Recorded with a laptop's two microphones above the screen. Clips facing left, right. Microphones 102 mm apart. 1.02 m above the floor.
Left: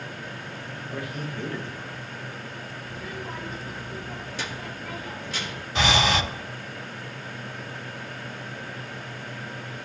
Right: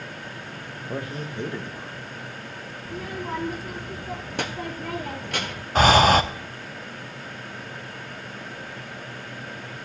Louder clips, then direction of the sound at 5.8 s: Right 7 dB; 45° right (ahead or behind).